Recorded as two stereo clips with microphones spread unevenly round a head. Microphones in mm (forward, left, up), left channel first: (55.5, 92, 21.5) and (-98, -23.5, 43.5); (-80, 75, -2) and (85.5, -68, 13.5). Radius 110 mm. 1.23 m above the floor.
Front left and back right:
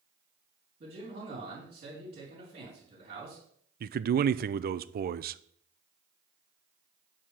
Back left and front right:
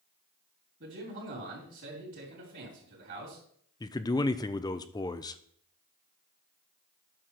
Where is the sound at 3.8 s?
160° right, 0.5 m.